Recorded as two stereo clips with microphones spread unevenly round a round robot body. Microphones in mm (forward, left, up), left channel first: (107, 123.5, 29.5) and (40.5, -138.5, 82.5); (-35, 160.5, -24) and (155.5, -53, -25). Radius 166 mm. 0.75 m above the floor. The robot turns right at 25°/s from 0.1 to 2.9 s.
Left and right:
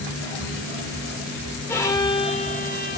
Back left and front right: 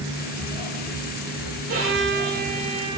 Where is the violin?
5° right, 1.8 m; by 3.0 s 25° left, 1.8 m.